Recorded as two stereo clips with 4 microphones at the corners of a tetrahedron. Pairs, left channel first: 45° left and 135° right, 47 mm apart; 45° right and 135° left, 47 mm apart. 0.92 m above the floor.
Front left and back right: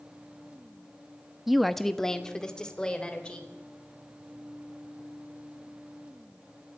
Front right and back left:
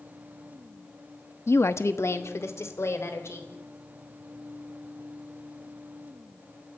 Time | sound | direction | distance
1.5 | a woman speaking | 50° right | 0.9 m